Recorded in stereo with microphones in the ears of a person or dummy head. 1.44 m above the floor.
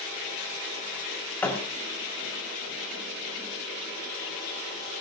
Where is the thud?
15° left (ahead or behind), 3 m.